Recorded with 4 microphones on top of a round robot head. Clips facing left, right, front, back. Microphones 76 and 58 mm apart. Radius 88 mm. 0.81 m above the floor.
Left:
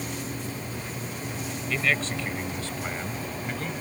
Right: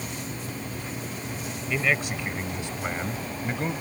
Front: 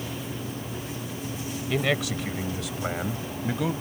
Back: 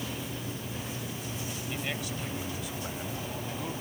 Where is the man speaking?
10° right; by 3.7 s 20° right.